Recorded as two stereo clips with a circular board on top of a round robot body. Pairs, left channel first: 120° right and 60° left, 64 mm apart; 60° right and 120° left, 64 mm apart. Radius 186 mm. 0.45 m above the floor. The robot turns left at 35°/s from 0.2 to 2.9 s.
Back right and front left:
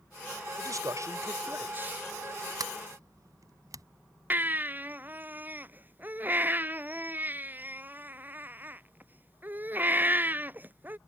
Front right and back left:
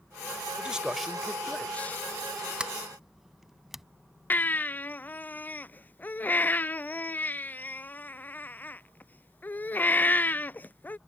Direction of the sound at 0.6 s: 50° left.